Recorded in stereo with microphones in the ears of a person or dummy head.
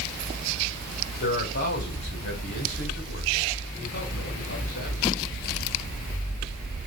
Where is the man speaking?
50° left (ahead or behind), 3.5 m; by 5.3 s 55° left (ahead or behind), 5.5 m.